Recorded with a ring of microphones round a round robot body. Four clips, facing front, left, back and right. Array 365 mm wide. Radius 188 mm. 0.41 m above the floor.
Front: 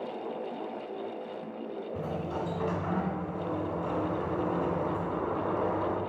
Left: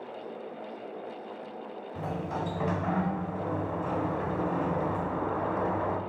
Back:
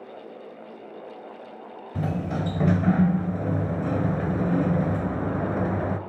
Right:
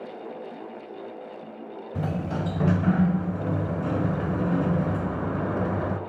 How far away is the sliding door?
About 0.8 m.